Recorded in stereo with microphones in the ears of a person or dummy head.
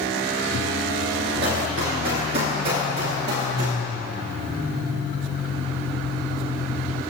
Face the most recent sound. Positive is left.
turn(degrees=-35)  # may be behind; listen again after turning